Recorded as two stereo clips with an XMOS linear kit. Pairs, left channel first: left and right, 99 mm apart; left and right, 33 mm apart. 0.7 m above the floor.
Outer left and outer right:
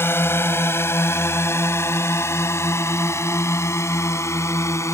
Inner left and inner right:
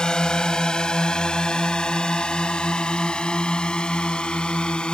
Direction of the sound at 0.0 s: 25° left (ahead or behind).